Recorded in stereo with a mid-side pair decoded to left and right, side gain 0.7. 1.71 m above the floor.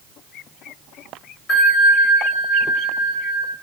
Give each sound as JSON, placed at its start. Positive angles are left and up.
{"t": 1.5, "sound": "a bell", "azimuth_deg": 50, "distance_m": 1.2}